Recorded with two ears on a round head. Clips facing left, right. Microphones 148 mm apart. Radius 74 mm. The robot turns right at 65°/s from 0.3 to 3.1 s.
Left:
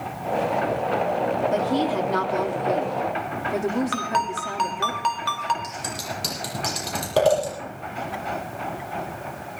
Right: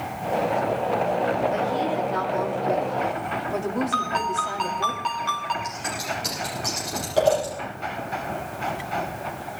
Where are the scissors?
70° left (ahead or behind), 8 m.